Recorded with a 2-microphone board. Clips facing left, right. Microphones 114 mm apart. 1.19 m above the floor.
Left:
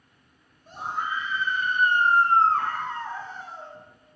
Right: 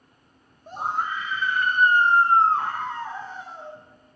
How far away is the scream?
About 1.1 m.